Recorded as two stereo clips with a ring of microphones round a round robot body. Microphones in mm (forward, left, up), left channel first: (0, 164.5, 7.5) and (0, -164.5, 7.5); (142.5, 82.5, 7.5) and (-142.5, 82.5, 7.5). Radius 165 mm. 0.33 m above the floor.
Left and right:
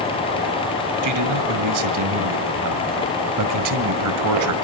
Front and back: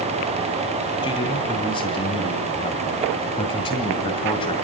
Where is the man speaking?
70° right, 2.0 m.